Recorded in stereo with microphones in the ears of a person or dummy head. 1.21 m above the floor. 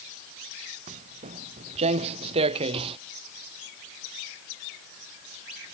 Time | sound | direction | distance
0.9 | footsteps | 40° right (ahead or behind) | ?